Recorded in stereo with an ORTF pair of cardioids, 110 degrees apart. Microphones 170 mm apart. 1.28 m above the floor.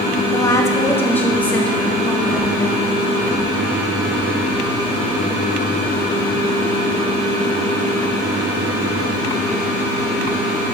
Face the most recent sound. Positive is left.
turn(degrees=0)